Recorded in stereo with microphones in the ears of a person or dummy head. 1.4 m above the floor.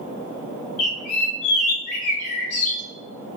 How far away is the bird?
About 0.7 m.